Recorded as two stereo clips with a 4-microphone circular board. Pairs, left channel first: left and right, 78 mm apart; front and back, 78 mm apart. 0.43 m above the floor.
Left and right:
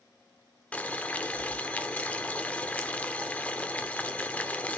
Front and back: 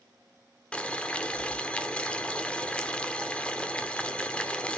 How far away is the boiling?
About 0.8 m.